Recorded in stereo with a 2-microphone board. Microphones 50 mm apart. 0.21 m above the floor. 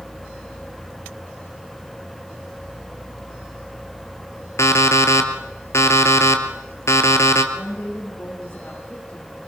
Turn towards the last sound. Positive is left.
turn(degrees=25)  # may be behind; listen again after turning